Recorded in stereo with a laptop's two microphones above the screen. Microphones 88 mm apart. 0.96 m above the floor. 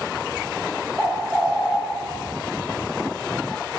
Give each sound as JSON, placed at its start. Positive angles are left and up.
{"t": 1.0, "sound": "a bird", "side_deg": -10, "distance_m": 0.8}